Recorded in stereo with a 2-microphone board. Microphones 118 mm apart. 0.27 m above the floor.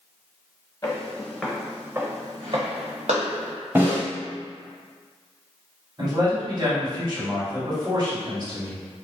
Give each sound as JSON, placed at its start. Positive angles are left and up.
{"t": 0.8, "sound": "footsteps", "side_deg": 30, "distance_m": 1.1}
{"t": 3.8, "sound": "a snare drum", "side_deg": -20, "distance_m": 1.1}
{"t": 6.0, "sound": "a man speaking", "side_deg": -35, "distance_m": 1.8}